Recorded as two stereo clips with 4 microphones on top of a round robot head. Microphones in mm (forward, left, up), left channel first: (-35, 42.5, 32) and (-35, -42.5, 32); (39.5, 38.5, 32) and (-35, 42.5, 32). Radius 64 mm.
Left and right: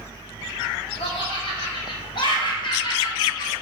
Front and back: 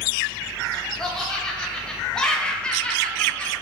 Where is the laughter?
80° left, 2 m; by 3.5 s 65° left, 1.0 m.